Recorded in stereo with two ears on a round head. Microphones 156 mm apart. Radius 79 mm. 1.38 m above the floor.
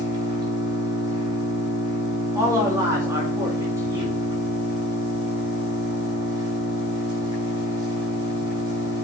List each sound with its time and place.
0.0 s an engine running: 25° right (ahead or behind), 6 m
2.4 s a man speaking: 15° right (ahead or behind), 3 m